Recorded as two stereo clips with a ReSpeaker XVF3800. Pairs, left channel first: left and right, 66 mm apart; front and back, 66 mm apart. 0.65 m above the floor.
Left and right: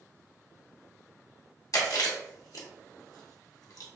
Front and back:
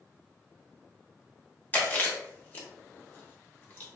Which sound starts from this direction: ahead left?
Chewing, at 1.7 s.